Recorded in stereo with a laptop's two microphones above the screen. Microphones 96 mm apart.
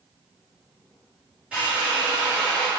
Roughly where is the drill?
Centre.